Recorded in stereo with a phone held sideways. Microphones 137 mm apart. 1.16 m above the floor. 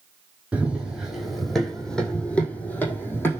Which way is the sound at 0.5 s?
10° right (ahead or behind).